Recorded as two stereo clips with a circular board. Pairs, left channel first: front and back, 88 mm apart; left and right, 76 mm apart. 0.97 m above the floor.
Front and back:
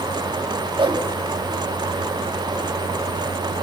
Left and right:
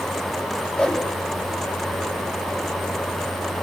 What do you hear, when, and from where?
0.8 s a whoosh: 170° left, 2 m